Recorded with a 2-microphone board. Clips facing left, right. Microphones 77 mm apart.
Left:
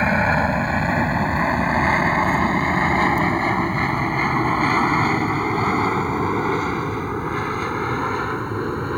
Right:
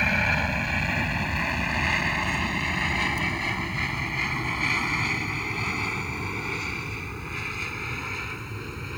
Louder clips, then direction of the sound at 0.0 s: Left 7 dB; 35° left (ahead or behind).